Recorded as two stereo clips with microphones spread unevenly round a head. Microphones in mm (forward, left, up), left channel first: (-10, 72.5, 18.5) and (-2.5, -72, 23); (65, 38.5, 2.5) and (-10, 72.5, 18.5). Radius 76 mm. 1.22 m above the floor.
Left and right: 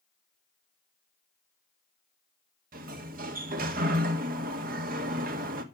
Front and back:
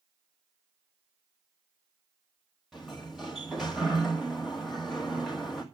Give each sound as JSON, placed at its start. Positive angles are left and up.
{"t": 2.7, "sound": "a sliding door", "azimuth_deg": -115, "distance_m": 1.6}